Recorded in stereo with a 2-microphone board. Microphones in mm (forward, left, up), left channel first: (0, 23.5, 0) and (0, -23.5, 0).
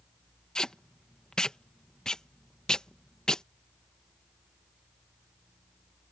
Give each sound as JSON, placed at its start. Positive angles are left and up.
{"t": 0.6, "sound": "tape being pulled", "side_deg": 15}